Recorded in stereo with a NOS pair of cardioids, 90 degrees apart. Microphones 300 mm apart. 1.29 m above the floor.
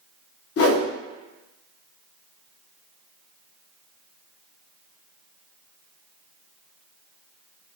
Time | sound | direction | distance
0.6 | a whoosh | 50° left | 0.7 m